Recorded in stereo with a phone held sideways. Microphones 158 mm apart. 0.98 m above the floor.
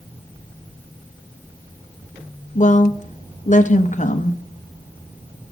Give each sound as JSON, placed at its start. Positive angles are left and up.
{"t": 2.5, "sound": "a woman speaking", "side_deg": 50, "distance_m": 0.8}